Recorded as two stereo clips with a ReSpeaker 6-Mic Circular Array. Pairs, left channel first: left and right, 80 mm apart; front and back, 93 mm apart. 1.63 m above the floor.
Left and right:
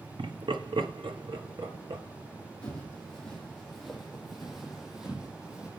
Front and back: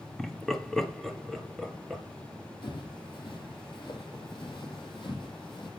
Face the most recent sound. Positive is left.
turn(degrees=-15)